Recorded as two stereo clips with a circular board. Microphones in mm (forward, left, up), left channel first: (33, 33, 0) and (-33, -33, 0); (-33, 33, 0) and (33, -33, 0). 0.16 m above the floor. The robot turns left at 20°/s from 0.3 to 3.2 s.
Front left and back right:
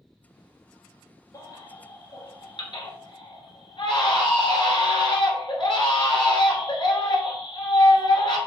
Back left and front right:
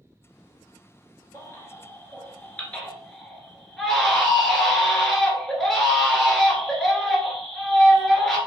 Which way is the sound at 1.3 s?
85° left.